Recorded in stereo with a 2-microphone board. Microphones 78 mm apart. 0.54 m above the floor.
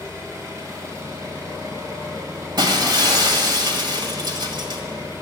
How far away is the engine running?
About 3 m.